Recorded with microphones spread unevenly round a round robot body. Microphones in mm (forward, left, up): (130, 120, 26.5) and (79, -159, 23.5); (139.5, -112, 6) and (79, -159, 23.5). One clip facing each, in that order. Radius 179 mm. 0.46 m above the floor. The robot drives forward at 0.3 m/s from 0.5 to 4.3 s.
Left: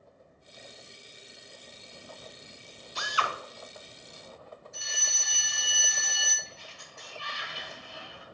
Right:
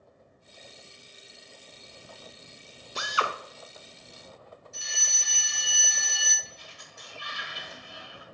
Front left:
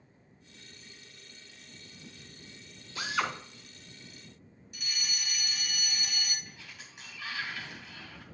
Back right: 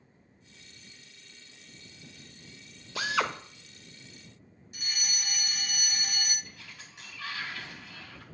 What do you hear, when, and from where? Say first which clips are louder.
3.0 s a drill: right 4 dB, back right 3 dB; 145° right, 0.7 m; by 3.3 s 150° right, 0.8 m
4.7 s a fire alarm: left 1 dB, back right 1 dB; 115° right, 2 m
6.5 s a sliding door: left 1 dB, even; straight behind, 1.7 m